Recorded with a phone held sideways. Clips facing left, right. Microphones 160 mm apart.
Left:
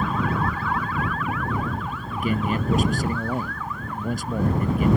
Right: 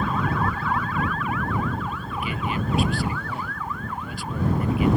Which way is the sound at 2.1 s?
45° left (ahead or behind).